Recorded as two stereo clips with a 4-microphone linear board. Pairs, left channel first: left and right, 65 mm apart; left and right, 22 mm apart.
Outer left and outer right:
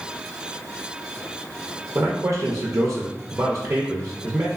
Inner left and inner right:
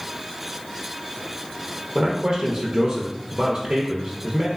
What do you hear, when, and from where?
1.9 s a man speaking: 45° right (ahead or behind), 0.5 m